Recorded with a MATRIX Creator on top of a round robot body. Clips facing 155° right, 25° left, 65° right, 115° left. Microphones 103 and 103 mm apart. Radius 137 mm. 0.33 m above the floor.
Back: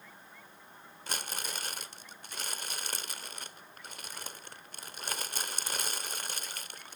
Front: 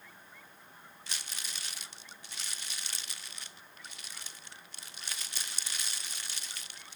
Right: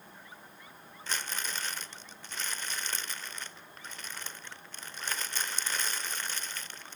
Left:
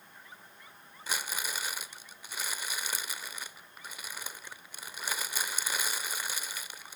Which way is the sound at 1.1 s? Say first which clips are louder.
Back 7 dB, left 1 dB; 170° right.